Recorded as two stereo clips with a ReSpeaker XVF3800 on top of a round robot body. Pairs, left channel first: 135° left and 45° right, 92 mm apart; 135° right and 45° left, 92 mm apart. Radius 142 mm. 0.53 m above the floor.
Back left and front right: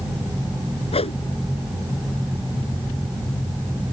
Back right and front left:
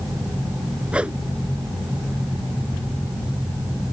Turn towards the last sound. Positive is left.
turn(degrees=125)